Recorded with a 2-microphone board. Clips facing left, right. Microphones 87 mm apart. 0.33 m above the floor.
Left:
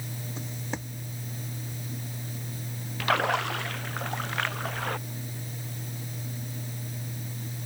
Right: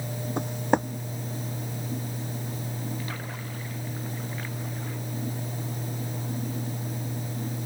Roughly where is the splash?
Left.